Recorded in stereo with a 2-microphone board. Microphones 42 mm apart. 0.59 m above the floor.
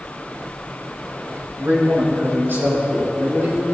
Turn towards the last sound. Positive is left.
turn(degrees=-65)  # may be behind; listen again after turning